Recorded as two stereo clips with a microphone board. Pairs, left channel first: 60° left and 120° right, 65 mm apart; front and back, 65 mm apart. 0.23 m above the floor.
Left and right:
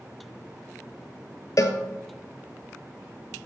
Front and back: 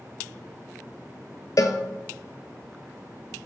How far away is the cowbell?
About 1.0 m.